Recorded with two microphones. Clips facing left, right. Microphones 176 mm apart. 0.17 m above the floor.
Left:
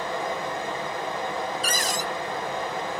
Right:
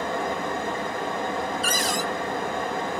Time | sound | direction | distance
0.0 | running water | 55° right (ahead or behind) | 1.2 m
1.6 | a cupboard door | 45° left (ahead or behind) | 0.7 m